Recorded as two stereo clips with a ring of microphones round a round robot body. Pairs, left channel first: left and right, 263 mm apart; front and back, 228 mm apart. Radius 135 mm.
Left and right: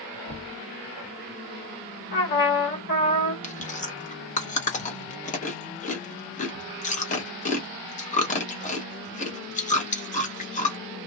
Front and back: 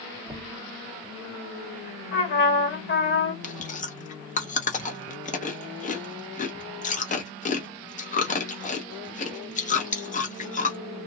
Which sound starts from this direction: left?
Knocking, at 0.3 s.